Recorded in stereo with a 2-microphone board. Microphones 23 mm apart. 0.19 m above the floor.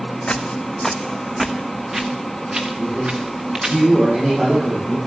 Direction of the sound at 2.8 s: 50° right (ahead or behind).